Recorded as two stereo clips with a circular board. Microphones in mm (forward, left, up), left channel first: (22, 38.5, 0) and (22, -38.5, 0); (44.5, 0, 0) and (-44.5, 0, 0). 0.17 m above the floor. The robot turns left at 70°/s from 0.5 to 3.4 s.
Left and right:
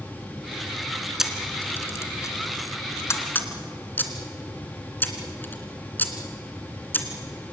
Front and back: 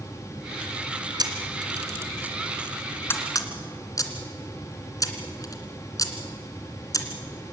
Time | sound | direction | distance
1.2 | a camera shutter | 175° right | 2 m